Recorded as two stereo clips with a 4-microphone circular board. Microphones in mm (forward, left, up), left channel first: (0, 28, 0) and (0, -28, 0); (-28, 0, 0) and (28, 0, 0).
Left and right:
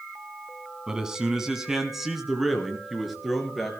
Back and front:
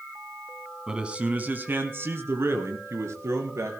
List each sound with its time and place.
0.9 s a man speaking: 40° right, 1.5 m; by 3.8 s straight ahead, 3.5 m